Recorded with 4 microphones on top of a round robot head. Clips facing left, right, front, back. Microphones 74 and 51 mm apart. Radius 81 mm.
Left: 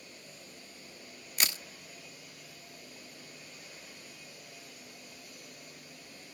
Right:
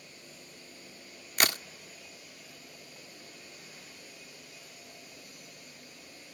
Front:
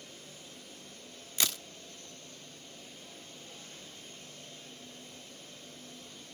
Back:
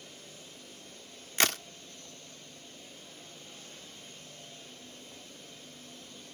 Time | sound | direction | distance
1.4 | a crack | 130° right | ?